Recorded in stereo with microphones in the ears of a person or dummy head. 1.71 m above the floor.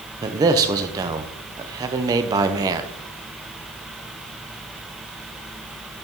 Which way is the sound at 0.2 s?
20° right (ahead or behind).